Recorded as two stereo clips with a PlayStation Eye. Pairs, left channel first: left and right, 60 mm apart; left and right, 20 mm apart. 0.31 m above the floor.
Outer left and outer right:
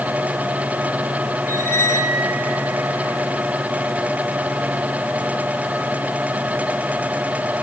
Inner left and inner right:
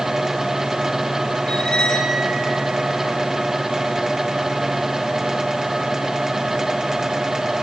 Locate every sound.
1.5 s a squeak: 50° left (ahead or behind), 1.3 m